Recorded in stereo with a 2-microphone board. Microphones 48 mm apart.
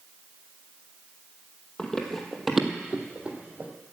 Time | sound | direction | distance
1.8 | running footsteps | 15° left (ahead or behind) | 1.8 m